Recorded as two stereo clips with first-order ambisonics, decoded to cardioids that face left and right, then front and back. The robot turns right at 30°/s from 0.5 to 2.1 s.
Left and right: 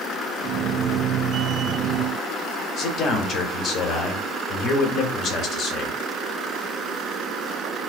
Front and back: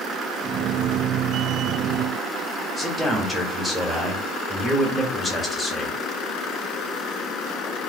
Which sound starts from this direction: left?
A man speaking, at 2.8 s.